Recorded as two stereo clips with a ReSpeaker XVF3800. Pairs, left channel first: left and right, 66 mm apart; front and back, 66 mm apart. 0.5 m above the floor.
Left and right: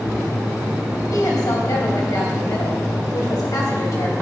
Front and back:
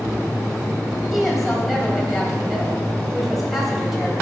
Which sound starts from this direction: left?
A woman speaking, at 1.1 s.